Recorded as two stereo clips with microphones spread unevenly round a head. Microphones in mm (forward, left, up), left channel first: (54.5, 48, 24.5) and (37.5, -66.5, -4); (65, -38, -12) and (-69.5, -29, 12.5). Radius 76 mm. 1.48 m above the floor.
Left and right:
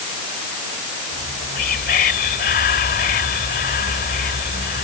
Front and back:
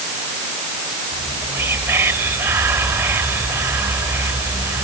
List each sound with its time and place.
1.1 s whispering: 100° left